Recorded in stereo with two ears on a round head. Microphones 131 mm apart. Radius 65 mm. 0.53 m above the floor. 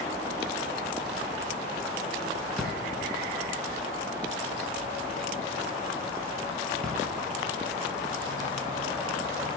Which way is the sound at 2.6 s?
5° left (ahead or behind).